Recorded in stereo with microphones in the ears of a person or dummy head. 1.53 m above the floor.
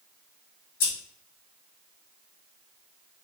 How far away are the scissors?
About 0.9 m.